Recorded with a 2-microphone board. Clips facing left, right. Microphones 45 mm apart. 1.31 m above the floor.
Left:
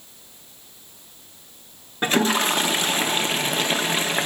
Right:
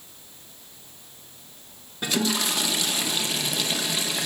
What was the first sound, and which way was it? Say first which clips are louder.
A toilet flushing: left 6 dB; 40° left (ahead or behind).